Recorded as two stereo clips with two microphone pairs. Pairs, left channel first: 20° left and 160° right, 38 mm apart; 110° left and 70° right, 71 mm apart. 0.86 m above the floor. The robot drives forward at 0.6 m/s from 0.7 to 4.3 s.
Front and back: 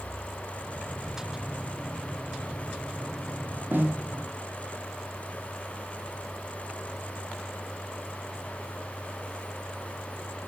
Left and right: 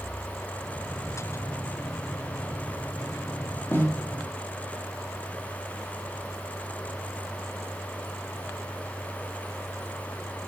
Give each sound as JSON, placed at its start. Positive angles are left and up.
{"t": 3.7, "sound": "a snare drum", "azimuth_deg": 170, "distance_m": 0.9}